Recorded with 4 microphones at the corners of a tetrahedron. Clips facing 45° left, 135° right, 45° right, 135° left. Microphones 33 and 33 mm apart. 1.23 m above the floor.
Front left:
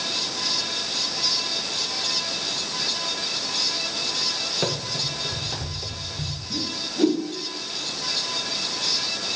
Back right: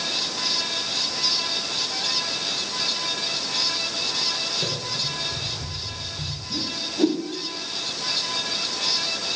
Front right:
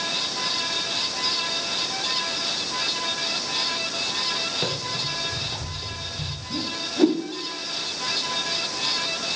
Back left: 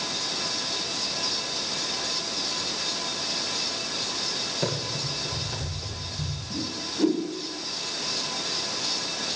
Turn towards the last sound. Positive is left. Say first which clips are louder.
# back right 1 dB, front right 5 dB
turn(degrees=-45)